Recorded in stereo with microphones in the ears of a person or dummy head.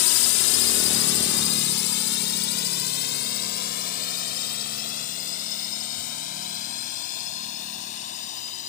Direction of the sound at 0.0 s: 75° left (ahead or behind).